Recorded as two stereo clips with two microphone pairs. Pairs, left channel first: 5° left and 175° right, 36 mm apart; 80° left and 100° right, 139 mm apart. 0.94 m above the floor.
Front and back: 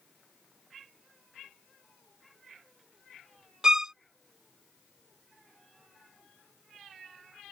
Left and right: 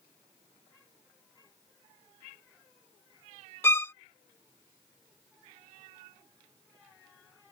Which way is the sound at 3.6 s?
135° left.